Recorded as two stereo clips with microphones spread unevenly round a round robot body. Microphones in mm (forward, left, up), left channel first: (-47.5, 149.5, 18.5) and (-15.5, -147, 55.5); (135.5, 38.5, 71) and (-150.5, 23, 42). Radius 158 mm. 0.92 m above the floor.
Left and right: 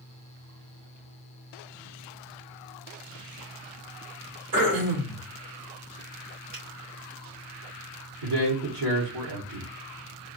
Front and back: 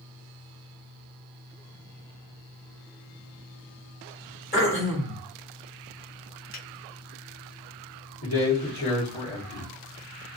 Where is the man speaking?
45° right, 1.5 m.